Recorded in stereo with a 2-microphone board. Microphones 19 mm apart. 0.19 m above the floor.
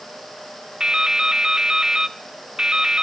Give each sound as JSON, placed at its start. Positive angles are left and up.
{"t": 0.8, "sound": "dripping", "side_deg": -40, "distance_m": 0.7}